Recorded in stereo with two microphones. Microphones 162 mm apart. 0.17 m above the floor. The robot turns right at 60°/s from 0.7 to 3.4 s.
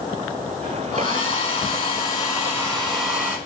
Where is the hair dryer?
55° left, 1.5 m; by 3.4 s 155° right, 1.5 m.